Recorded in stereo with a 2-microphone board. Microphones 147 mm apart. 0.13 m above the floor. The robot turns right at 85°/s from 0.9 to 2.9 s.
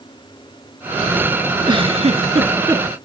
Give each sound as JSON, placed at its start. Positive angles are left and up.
{"t": 1.6, "sound": "a giggle", "azimuth_deg": -135, "distance_m": 1.6}